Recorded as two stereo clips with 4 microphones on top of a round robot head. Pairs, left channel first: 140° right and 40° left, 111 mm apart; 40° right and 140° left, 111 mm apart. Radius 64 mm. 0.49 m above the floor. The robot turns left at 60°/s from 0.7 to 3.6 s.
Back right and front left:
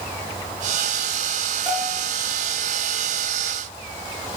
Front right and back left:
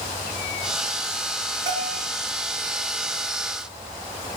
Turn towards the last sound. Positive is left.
turn(degrees=-30)